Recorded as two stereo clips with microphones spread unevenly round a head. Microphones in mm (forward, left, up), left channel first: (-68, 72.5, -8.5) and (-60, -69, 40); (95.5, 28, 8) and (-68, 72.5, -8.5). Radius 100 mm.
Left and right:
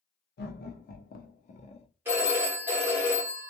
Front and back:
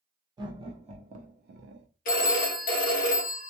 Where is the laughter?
95° left, 1.0 m; by 1.9 s 150° left, 0.8 m.